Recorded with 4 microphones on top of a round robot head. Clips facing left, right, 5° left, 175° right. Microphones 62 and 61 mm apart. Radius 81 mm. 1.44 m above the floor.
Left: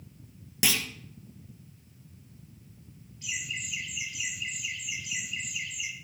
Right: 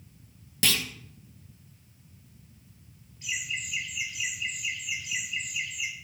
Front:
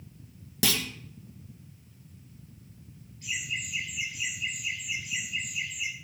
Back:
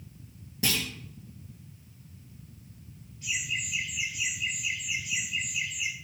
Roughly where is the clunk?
Ahead.